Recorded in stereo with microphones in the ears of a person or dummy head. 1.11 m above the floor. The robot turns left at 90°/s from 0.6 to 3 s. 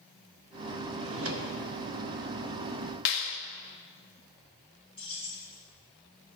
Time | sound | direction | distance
1.0 | a drawer | 75° right | 1.0 m
3.0 | a clap | 60° left (ahead or behind) | 0.9 m
5.0 | keys jangling | 35° left (ahead or behind) | 4.5 m